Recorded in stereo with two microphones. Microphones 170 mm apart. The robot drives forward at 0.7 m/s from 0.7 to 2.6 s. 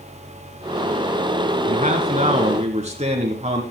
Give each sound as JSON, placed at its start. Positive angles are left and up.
{"t": 1.6, "sound": "a man speaking", "side_deg": -45, "distance_m": 1.9}